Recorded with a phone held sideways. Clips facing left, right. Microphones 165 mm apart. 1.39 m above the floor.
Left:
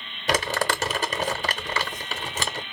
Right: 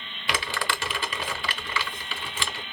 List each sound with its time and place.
0.3 s crumpling: 40° left (ahead or behind), 0.8 m